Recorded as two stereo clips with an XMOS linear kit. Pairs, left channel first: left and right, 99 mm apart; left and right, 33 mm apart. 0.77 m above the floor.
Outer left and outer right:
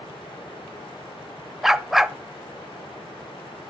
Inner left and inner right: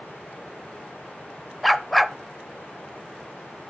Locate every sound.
1.6 s a dog barking: 5° right (ahead or behind), 0.5 m